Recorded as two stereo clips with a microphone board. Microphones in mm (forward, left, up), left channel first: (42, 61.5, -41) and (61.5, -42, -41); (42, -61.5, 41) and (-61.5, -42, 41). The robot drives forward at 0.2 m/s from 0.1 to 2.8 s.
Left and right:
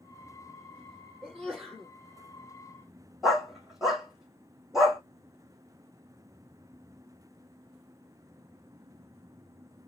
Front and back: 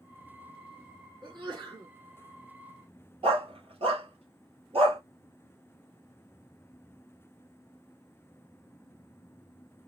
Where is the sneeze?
175° left, 2.5 m.